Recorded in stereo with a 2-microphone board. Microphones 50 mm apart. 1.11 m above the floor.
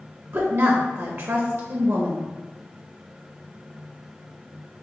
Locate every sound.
0.3 s a woman speaking: 55° right (ahead or behind), 0.6 m